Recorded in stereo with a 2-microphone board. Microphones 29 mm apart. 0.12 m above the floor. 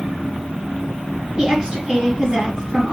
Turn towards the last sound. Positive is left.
turn(degrees=-25)  # may be behind; listen again after turning